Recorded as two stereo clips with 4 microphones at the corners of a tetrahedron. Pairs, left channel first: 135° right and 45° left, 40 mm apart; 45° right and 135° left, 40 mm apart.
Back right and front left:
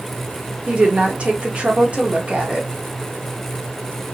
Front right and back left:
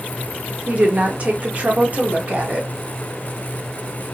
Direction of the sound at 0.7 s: 95° left.